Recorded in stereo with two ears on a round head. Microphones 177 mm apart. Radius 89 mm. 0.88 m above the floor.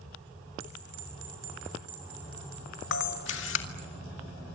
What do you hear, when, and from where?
0.6 s a bell: 75° right (ahead or behind), 6.5 m
2.9 s a camera shutter: 70° left (ahead or behind), 2 m